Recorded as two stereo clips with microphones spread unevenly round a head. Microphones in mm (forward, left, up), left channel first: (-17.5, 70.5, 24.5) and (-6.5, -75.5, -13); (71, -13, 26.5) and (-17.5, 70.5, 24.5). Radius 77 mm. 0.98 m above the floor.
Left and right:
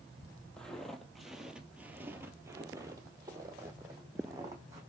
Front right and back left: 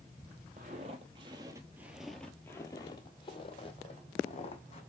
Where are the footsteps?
165° left, 1.4 m; by 4.8 s 10° right, 2.5 m.